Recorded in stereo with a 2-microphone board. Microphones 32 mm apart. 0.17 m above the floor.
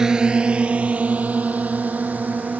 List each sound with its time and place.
0.0 s a drone: 15° right (ahead or behind); by 2.6 s 60° right (ahead or behind)